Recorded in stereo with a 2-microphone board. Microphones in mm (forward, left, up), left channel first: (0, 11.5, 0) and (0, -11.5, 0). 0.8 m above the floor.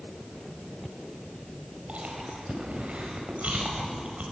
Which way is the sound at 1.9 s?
75° right (ahead or behind).